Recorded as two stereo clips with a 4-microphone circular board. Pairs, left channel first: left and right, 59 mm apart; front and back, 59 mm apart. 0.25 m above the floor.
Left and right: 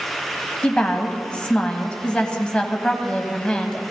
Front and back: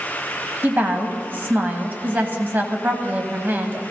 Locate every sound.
0.6 s a woman speaking: 150° left, 1.3 m